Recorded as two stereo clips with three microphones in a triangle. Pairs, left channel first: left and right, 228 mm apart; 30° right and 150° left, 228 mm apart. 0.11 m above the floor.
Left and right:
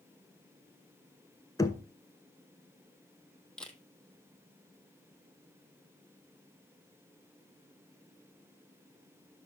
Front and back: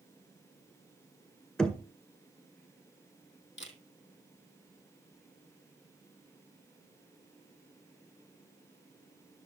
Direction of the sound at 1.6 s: 50° left.